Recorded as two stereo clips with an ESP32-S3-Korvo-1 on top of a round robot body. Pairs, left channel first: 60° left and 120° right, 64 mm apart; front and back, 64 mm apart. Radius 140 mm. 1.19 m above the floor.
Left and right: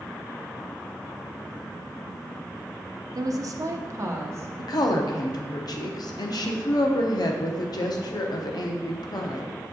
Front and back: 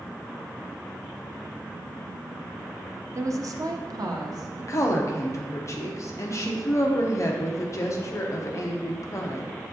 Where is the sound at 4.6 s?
45° left, 0.7 m.